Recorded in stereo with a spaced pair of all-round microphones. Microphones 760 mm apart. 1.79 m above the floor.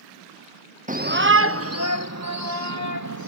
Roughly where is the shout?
Centre.